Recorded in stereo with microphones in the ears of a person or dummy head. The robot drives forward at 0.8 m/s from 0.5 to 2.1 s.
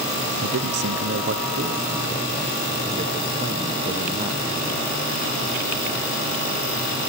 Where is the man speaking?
80° right, 0.9 m; by 4.8 s 35° right (ahead or behind), 1.4 m.